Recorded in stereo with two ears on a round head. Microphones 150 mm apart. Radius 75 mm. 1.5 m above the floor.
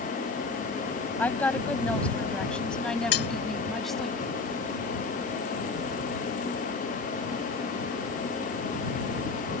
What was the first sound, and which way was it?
A woman speaking, 10° left (ahead or behind).